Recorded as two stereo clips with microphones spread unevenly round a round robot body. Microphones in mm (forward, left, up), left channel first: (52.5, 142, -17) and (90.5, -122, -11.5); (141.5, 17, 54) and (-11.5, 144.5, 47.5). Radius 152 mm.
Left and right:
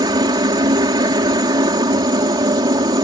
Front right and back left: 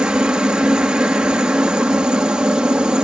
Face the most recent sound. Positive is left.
turn(degrees=-140)